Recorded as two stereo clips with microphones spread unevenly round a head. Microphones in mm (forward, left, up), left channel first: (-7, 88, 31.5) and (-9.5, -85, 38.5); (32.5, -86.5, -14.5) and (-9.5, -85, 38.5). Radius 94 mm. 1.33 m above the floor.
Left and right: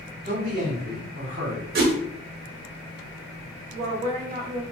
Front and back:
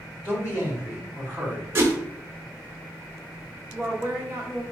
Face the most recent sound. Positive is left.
turn(degrees=-125)